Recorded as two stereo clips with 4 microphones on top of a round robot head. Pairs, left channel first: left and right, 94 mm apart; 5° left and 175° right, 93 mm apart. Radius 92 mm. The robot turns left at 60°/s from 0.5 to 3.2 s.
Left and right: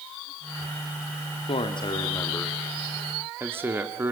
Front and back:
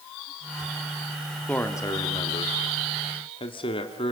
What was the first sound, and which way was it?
A man speaking, 80° left.